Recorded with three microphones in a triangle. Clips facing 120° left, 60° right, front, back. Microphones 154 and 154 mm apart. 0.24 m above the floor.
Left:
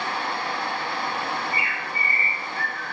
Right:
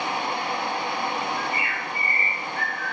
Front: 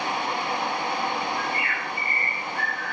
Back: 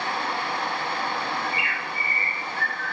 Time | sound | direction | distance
1.4 | a bird | 20° right | 1.2 m